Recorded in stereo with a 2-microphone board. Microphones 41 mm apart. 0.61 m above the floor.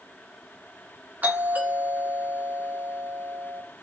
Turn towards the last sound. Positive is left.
turn(degrees=-45)  # may be behind; listen again after turning